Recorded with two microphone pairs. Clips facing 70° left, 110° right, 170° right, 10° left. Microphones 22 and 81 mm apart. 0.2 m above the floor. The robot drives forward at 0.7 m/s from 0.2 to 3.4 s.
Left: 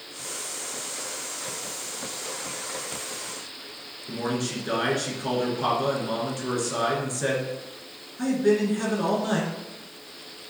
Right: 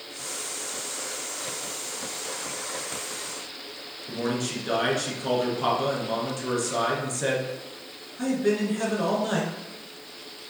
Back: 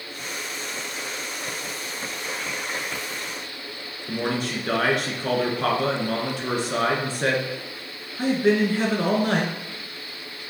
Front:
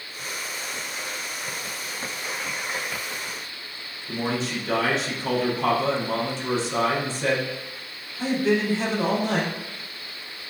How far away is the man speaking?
About 2 m.